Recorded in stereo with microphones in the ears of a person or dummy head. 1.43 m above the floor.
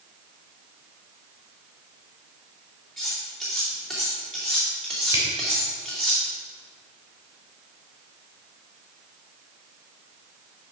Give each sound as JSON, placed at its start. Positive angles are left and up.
{"t": 3.0, "sound": "cutlery clinking", "side_deg": 0, "distance_m": 2.5}
{"t": 5.1, "sound": "a camera shutter", "side_deg": -15, "distance_m": 3.0}